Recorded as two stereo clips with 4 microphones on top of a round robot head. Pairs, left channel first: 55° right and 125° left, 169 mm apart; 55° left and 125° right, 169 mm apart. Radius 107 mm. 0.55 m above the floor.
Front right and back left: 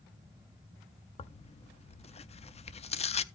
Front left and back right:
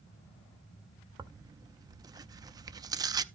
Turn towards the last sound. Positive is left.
turn(degrees=-70)